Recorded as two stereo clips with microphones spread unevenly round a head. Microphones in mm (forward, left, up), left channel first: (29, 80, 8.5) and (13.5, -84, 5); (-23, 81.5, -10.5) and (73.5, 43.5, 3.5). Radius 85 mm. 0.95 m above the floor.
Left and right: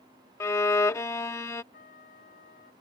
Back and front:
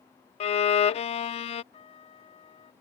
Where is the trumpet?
130° left.